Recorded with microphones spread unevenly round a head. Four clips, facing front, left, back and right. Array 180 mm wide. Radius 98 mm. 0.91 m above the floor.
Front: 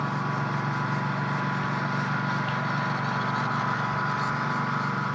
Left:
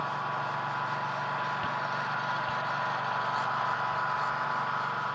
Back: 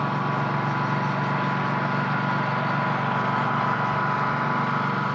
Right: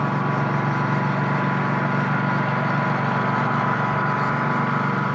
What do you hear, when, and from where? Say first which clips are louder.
0.0 s a lawn mower: right 9 dB, back 4 dB; 105° right